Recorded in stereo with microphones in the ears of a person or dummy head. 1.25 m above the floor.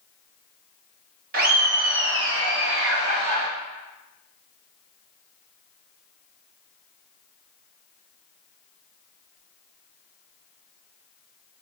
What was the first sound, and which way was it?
Laughter, 45° right (ahead or behind).